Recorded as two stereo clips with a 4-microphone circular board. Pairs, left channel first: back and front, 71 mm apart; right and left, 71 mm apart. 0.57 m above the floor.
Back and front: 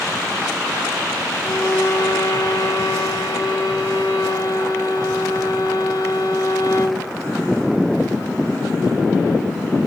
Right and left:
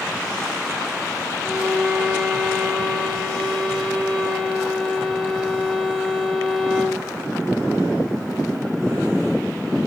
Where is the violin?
175° right, 0.9 m.